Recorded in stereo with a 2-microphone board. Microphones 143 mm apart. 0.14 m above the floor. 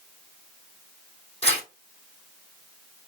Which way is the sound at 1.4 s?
45° left (ahead or behind).